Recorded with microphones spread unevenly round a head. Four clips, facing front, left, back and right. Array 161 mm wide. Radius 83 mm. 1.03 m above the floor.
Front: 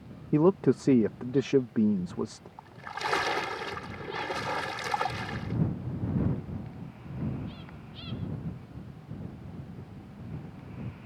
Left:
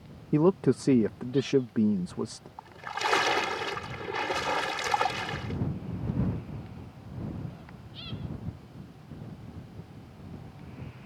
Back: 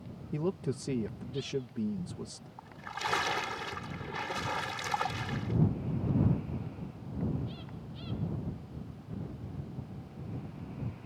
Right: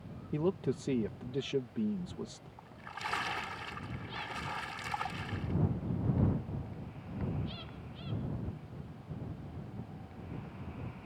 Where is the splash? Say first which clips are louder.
Left 10 dB, front 3 dB; 65° left.